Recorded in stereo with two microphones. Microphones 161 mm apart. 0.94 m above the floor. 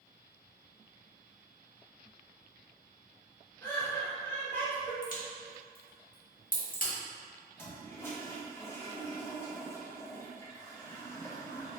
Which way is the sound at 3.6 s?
10° left (ahead or behind).